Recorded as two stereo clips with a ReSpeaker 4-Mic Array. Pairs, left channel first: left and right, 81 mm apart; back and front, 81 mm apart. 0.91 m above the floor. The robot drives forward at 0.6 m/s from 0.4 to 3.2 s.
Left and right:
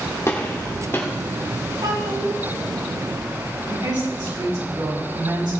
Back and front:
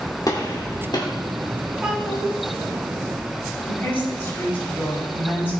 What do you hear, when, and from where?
0.3 s a gunshot: 145° left, 2.5 m; by 1.1 s 150° left, 3 m
1.8 s a child speaking: 80° right, 6 m; by 2.4 s 85° right, 6 m
3.7 s a woman speaking: 115° right, 5.5 m